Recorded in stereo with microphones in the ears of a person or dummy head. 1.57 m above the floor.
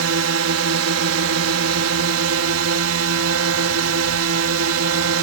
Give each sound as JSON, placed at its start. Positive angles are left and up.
{"t": 0.0, "sound": "a drone", "side_deg": -80}